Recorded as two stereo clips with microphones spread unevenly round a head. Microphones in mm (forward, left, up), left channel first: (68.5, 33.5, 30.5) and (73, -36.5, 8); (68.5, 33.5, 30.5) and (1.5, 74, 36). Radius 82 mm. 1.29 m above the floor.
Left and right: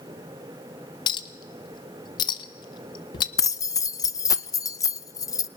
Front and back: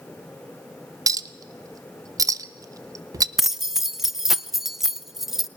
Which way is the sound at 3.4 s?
65° left.